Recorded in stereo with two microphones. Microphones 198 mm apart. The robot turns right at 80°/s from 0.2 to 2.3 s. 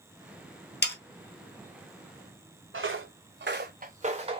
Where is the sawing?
60° left (ahead or behind), 0.7 m.